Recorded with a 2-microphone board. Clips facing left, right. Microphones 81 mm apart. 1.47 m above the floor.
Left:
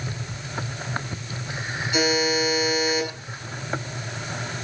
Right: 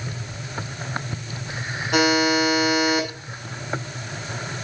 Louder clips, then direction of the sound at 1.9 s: Right 4 dB; 60° right (ahead or behind).